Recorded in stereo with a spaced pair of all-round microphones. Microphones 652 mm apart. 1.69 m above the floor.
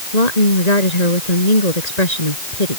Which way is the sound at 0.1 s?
90° left.